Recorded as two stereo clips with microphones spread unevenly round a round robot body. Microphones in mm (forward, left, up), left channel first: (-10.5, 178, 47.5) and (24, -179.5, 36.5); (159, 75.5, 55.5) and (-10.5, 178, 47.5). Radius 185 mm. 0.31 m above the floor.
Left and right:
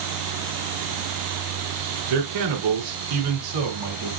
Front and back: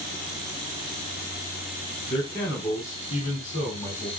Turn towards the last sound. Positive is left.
turn(degrees=-110)